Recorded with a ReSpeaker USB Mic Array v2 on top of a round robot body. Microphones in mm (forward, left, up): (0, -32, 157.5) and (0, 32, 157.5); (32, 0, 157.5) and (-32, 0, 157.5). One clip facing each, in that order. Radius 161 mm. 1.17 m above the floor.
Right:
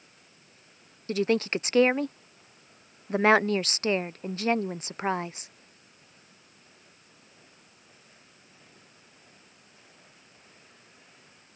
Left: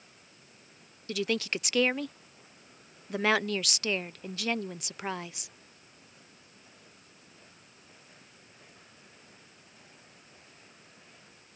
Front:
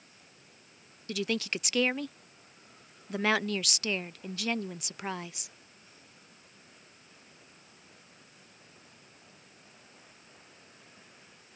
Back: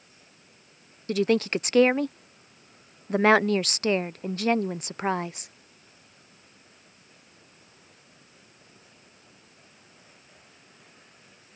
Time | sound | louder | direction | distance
1.1 | a woman speaking | right 5 dB, back 9 dB | 140° right | ?